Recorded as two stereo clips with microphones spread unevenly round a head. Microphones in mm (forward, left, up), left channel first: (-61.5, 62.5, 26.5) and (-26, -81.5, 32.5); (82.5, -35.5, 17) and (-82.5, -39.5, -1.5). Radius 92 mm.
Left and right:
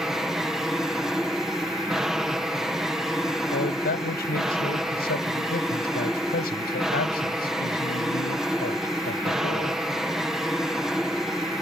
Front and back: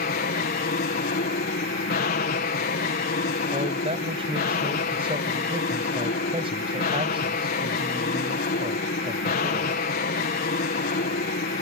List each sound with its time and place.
0.0 s an aircraft: 10° left
3.5 s a man speaking: 120° left